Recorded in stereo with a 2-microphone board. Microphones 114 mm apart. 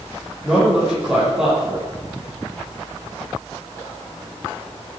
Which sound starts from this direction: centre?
A man speaking, at 0.4 s.